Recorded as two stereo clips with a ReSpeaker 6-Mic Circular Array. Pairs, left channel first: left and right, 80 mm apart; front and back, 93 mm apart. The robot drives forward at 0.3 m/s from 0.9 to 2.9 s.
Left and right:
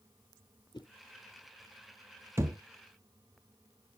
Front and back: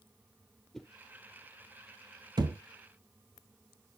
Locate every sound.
0.7 s a whoosh: 85° left, 0.7 m
2.4 s a thud: 145° right, 0.8 m